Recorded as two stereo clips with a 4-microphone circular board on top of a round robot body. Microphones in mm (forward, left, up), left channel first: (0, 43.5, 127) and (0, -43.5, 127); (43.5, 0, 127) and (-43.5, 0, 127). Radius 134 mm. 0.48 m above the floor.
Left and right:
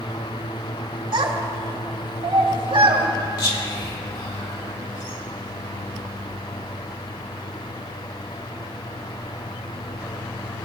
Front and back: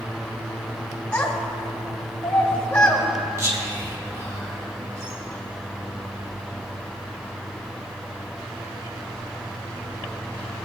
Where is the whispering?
120° left, 3.5 m.